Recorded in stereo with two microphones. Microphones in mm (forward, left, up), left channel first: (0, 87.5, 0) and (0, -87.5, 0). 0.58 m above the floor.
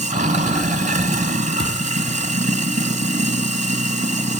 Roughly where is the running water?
Right.